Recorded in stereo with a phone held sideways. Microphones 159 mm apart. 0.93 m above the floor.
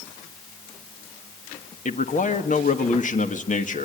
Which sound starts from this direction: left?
A man speaking, at 1.9 s.